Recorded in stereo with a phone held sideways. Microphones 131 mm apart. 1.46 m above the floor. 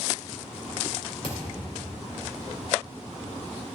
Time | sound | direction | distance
1.2 | a thud | 45° left (ahead or behind) | 2 m